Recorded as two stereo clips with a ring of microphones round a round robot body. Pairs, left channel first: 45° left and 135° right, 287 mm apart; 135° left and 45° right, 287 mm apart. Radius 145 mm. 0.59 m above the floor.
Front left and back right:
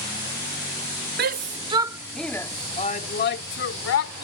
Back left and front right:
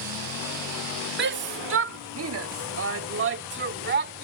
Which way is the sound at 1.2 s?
90° right.